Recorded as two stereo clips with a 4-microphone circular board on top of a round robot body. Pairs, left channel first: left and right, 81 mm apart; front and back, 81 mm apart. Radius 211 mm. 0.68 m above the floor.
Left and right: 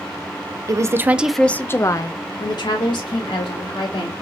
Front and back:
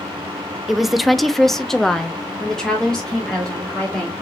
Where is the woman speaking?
95° right, 0.7 m; by 4.1 s 85° left, 1.9 m.